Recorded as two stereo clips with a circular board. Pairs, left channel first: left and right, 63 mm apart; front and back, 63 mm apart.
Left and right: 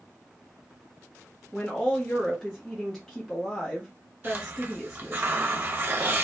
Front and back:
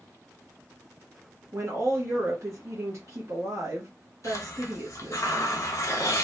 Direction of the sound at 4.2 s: 35° right.